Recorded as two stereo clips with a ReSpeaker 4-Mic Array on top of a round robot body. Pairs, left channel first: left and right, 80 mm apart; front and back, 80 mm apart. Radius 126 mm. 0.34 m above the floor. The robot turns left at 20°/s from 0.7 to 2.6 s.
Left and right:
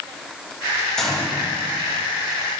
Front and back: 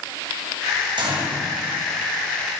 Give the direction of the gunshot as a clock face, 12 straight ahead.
6 o'clock.